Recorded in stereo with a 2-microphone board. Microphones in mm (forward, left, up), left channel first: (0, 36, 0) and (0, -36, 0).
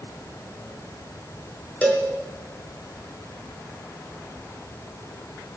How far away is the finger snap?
I don't hear a finger snap.